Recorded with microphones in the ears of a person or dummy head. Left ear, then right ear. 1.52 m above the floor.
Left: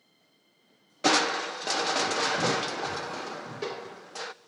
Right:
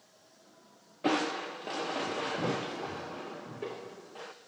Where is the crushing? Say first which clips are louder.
Left 6 dB; 70° left (ahead or behind), 0.7 m.